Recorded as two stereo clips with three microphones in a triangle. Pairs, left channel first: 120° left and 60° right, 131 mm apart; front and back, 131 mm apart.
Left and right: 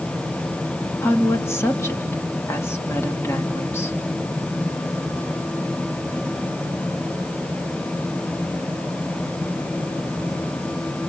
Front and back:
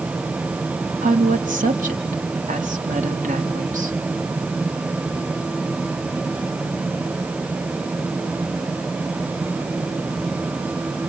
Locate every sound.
1.0 s a woman speaking: 170° right, 3 m